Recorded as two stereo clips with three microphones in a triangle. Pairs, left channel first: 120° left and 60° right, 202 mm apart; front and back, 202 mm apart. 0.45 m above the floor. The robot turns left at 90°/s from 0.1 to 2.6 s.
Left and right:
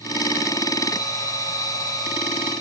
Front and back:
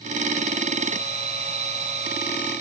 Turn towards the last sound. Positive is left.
No sound to turn to.